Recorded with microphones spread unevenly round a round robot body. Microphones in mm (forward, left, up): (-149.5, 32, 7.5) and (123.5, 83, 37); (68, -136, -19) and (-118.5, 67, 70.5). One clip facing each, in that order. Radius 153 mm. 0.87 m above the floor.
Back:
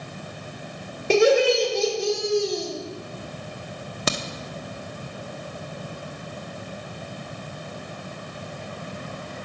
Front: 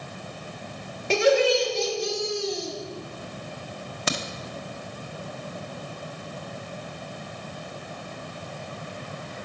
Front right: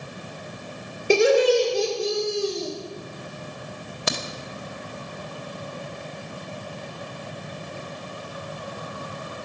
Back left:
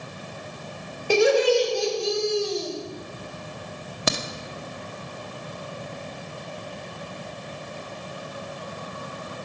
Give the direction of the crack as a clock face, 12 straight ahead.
7 o'clock.